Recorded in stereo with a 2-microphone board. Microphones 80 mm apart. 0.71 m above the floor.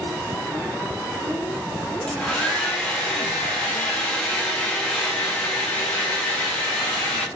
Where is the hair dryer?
15° left (ahead or behind), 1.1 m.